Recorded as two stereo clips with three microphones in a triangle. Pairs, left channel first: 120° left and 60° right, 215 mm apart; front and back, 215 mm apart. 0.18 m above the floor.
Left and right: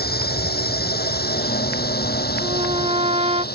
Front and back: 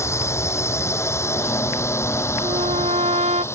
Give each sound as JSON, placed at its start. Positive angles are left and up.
{"t": 0.0, "sound": "a drone", "azimuth_deg": 75}
{"t": 2.4, "sound": "a trumpet", "azimuth_deg": -120}